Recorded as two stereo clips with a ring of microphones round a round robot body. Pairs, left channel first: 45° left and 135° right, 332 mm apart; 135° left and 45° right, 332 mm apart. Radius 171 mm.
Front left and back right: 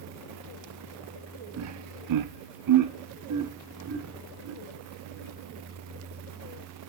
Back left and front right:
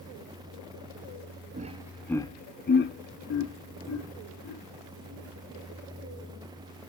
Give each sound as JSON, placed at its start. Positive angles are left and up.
{"t": 1.6, "sound": "laughter", "azimuth_deg": -105, "distance_m": 0.8}